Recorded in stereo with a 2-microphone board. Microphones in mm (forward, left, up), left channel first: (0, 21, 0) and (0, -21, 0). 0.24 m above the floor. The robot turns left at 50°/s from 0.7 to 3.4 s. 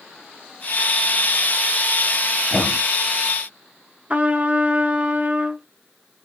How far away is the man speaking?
About 1.9 m.